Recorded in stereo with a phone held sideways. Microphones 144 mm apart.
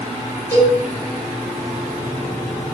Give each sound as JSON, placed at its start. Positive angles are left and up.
{"t": 0.5, "sound": "a cowbell", "side_deg": 15, "distance_m": 3.5}